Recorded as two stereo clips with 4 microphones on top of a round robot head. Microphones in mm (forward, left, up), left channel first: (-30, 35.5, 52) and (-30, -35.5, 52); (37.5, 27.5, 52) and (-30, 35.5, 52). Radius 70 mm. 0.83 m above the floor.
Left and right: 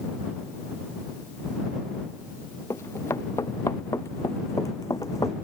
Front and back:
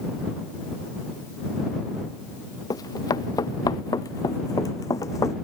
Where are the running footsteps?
25° left; by 5.3 s 35° left.